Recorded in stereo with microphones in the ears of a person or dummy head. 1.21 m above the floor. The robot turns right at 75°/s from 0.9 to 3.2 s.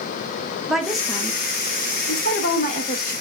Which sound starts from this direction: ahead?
A woman speaking, at 0.7 s.